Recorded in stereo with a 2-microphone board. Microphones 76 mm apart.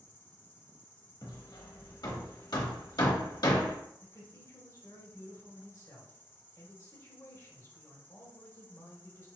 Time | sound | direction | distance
0.0 | an insect | 25° left (ahead or behind) | 0.9 m
1.2 | hammering | 65° left (ahead or behind) | 1.1 m
4.0 | a man speaking | 50° left (ahead or behind) | 2 m